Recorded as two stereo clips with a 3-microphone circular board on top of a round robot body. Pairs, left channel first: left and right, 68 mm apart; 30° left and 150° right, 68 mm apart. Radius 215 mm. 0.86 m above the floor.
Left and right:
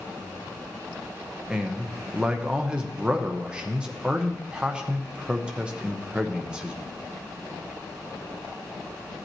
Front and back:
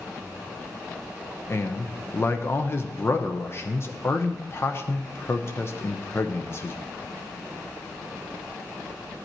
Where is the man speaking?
15° right, 0.9 m.